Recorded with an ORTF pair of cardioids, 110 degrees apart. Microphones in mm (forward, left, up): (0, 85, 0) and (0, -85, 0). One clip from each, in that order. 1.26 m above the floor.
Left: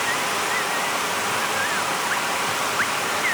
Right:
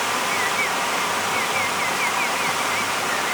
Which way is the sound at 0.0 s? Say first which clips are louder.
Right 1 dB; 5° right.